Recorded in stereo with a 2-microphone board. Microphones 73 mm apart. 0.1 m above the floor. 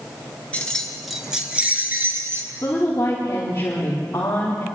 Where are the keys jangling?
20° left (ahead or behind), 1.2 m; by 2.5 s 40° right (ahead or behind), 1.5 m.